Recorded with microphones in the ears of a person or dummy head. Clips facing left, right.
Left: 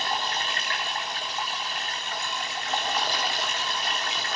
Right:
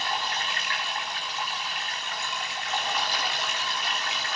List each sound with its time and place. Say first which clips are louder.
0.0 s running water: left 2 dB; 30° left (ahead or behind), 3.5 m